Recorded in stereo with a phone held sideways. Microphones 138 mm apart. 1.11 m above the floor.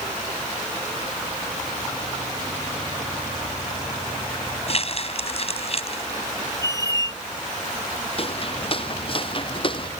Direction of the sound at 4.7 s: 45° left (ahead or behind).